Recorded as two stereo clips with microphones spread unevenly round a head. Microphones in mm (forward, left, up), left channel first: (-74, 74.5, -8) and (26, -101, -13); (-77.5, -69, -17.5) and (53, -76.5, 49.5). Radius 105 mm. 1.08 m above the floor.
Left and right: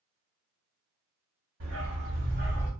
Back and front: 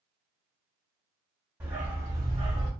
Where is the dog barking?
70° right, 1.6 m; by 2.7 s straight ahead, 1.0 m.